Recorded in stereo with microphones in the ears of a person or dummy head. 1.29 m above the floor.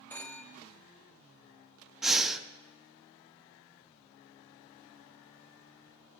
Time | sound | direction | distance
0.1 | a phone ringing | 10° left (ahead or behind) | 0.7 m
2.0 | breathing | 5° right (ahead or behind) | 0.6 m